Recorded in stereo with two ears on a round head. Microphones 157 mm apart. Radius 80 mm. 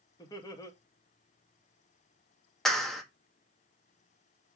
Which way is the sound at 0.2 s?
25° left (ahead or behind).